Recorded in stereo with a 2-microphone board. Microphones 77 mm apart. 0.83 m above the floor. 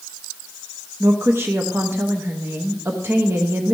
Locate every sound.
1.0 s a woman speaking: 30° right (ahead or behind), 0.9 m